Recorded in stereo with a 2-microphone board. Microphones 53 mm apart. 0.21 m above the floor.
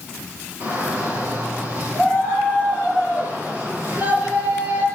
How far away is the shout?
About 5 m.